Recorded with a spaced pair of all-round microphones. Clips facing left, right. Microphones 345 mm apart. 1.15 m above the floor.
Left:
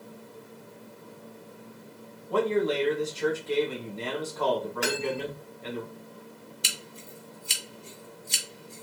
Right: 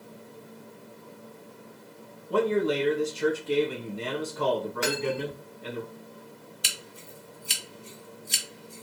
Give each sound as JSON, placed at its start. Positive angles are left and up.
{"t": 2.3, "sound": "a man speaking", "side_deg": -20, "distance_m": 1.4}
{"t": 4.8, "sound": "cutlery clinking", "side_deg": -5, "distance_m": 1.4}
{"t": 6.6, "sound": "scissors", "side_deg": -30, "distance_m": 1.5}